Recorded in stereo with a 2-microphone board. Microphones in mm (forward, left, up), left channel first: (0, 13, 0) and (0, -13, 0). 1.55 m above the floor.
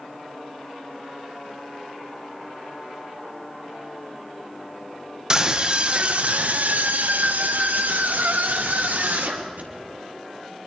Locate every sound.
5.3 s a scream: 25° right (ahead or behind), 1.4 m; by 9.7 s 75° right (ahead or behind), 3.5 m